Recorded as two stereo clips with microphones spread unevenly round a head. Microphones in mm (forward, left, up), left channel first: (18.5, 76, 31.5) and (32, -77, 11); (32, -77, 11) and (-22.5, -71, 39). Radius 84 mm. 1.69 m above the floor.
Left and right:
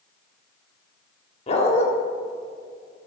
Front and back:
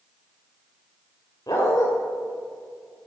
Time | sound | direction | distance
1.5 | a dog barking | 70° left | 1.7 m